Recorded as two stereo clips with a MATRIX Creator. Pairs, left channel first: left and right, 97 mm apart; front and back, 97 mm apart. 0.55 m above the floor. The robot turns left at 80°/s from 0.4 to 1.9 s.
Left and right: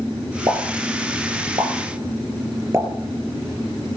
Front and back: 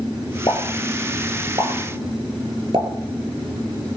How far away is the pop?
About 3 m.